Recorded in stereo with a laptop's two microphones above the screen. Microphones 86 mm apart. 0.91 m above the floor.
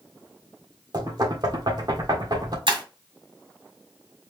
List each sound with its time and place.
0.9 s knocking: 50° right (ahead or behind), 1.5 m
2.7 s breaking glass: 70° right (ahead or behind), 1.9 m